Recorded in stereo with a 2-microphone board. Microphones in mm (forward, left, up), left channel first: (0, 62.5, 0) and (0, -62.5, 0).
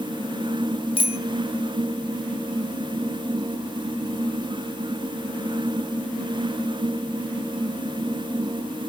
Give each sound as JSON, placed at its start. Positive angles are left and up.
{"t": 1.0, "sound": "a bicycle bell", "side_deg": 45, "distance_m": 2.5}